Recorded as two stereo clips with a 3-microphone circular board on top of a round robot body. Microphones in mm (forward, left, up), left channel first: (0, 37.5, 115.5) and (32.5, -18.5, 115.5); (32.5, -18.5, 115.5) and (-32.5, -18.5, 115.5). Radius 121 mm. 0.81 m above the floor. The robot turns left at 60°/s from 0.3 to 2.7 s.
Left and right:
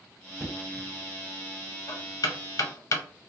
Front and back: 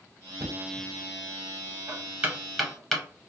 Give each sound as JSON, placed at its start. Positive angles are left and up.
{"t": 0.4, "sound": "knocking", "azimuth_deg": -140, "distance_m": 1.1}